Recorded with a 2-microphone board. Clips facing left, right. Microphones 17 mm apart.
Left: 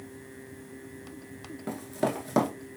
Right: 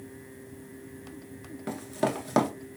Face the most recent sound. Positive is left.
turn(degrees=-25)  # may be behind; listen again after turning